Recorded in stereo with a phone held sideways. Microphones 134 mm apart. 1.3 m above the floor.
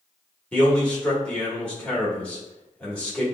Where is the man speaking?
10° left (ahead or behind), 1.4 m.